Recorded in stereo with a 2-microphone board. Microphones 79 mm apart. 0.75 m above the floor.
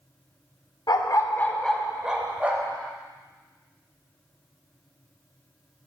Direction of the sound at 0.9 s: 60° left (ahead or behind).